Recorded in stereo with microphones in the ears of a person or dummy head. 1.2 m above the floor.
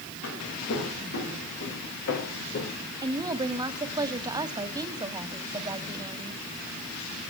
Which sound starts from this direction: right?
A woman speaking, at 3.0 s.